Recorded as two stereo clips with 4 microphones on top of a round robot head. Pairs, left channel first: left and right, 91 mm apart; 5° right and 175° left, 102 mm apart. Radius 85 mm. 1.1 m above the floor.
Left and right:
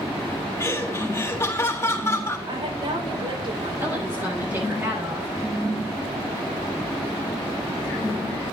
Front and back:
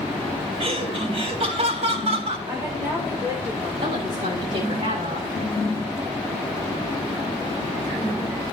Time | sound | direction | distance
0.6 | laughter | 155° left | 3.5 m
2.5 | a woman speaking | 115° right | 5 m
3.8 | a woman speaking | 155° right | 7.5 m